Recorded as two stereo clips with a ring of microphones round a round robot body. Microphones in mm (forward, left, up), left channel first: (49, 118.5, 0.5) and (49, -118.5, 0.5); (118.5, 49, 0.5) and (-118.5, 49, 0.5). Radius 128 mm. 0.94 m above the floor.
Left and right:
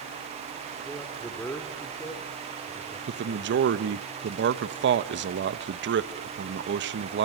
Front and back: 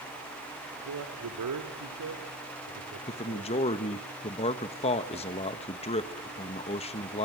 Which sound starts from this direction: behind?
A man speaking, at 0.8 s.